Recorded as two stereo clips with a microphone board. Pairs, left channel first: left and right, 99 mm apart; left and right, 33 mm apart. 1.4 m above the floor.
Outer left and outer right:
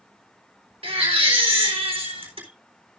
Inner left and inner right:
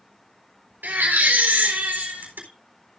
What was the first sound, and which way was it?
A baby crying, 75° right (ahead or behind).